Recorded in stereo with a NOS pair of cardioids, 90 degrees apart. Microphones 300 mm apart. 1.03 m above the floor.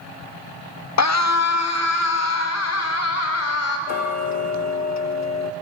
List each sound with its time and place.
1.0 s a scream: 65° left, 1.5 m; by 3.8 s 60° left, 5.5 m
3.9 s ticking: 70° left, 0.8 m